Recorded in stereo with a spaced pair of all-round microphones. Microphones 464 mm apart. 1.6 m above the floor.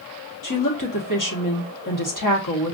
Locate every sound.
0.4 s a woman speaking: 45° left (ahead or behind), 1.3 m